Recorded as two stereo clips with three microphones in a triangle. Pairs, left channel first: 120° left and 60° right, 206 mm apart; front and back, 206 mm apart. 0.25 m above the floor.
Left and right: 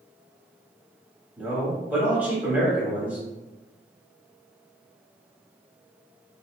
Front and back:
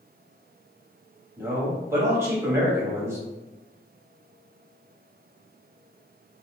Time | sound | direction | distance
1.4 | a man speaking | 130° right | 1.3 m